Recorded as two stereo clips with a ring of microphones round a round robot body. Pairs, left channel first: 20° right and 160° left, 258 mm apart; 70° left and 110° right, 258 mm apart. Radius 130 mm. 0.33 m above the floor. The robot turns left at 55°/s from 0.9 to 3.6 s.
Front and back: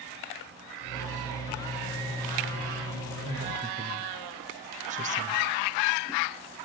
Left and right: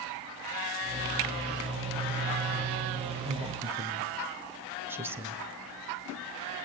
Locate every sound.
3.2 s a woman speaking: 165° right, 1.2 m; by 5.4 s 175° left, 1.2 m